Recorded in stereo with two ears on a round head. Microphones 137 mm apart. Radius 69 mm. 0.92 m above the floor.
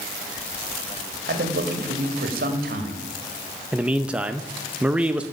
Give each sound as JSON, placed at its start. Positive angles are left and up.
{"t": 1.3, "sound": "a man speaking", "side_deg": -65, "distance_m": 2.5}
{"t": 3.7, "sound": "a man speaking", "side_deg": -10, "distance_m": 0.6}